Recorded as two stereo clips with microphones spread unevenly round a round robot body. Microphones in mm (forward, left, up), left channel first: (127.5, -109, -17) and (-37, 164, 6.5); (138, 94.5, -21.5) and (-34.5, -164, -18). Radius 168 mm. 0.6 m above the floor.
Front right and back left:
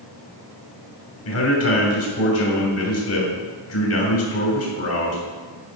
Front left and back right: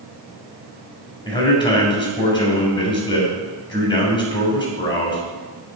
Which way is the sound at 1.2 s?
20° right.